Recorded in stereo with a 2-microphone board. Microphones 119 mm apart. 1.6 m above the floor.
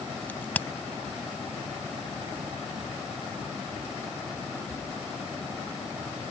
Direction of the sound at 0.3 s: 15° left (ahead or behind).